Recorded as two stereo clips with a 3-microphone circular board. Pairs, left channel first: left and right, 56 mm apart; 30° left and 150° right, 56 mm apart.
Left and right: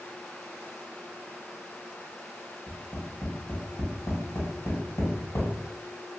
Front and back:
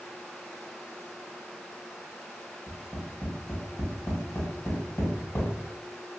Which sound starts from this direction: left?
Tapping, at 2.7 s.